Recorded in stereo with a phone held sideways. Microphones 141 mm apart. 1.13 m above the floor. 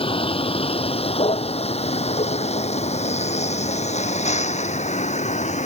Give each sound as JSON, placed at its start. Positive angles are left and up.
{"t": 0.0, "sound": "a vehicle", "side_deg": 45}